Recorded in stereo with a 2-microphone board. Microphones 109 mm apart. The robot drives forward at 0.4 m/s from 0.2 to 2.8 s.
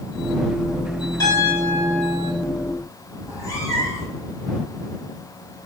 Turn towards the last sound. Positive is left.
turn(degrees=30)  # may be behind; listen again after turning